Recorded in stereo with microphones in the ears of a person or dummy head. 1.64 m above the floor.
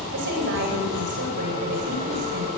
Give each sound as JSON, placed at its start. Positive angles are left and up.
{"t": 0.1, "sound": "a woman speaking", "side_deg": -60, "distance_m": 8.5}